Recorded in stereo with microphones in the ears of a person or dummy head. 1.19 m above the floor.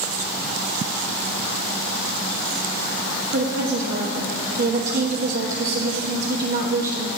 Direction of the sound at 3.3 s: 60° right (ahead or behind).